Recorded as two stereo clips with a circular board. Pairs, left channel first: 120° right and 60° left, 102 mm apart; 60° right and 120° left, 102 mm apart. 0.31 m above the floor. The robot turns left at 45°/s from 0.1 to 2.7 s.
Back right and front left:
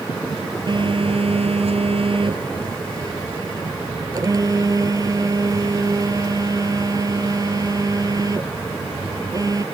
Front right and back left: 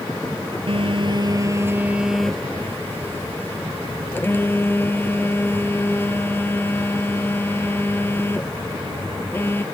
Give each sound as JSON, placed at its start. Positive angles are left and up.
{"t": 0.7, "sound": "a phone buzzing", "azimuth_deg": 100}